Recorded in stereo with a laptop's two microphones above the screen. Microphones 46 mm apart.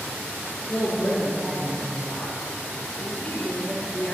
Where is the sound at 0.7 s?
25° left (ahead or behind), 1.3 m.